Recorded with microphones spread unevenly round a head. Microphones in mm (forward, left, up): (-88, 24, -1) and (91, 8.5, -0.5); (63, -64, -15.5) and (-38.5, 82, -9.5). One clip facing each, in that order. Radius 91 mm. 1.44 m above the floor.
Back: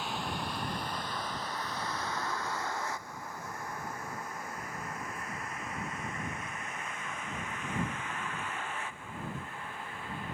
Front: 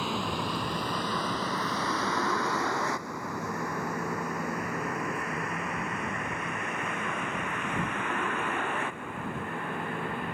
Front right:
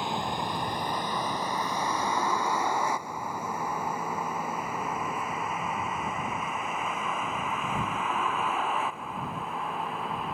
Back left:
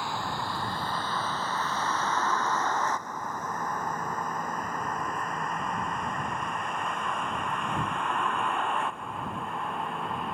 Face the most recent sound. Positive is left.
turn(degrees=35)